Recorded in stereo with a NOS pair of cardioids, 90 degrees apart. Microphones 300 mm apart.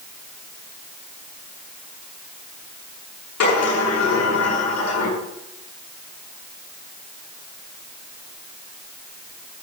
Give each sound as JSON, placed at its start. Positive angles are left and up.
{"t": 3.4, "sound": "a sliding door", "azimuth_deg": 65, "distance_m": 8.0}